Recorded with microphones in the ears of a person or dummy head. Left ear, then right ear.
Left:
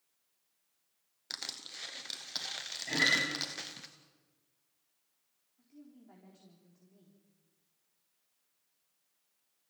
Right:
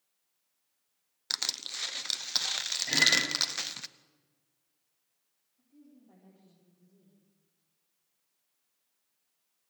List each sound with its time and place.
1.3 s crushing: 35° right (ahead or behind), 0.8 m
2.9 s a guitar: 25° right (ahead or behind), 10 m
5.6 s a woman speaking: 70° left (ahead or behind), 4 m